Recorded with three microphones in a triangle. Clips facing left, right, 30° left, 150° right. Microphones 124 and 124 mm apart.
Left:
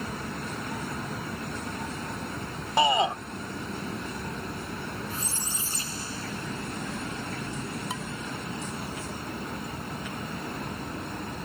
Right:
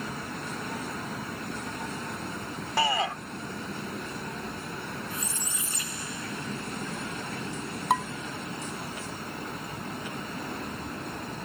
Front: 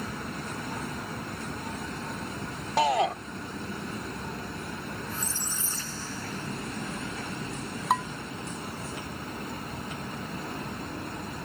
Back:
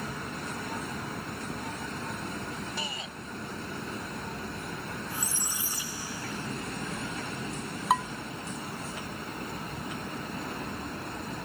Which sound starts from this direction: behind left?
A squeak, at 5.1 s.